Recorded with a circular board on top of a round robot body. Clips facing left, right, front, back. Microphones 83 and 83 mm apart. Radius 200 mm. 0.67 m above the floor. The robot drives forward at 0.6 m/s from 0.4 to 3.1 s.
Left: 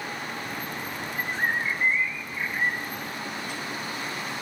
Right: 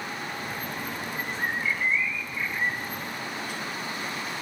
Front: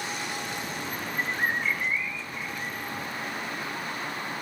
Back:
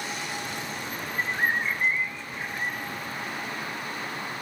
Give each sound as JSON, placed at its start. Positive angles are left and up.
{"t": 1.2, "sound": "a bird", "azimuth_deg": 110}